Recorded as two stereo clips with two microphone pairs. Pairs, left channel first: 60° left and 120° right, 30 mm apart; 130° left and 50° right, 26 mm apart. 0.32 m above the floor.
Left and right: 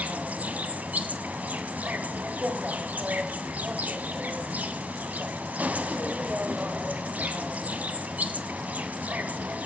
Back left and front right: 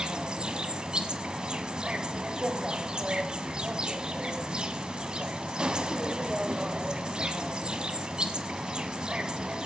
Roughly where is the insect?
Right.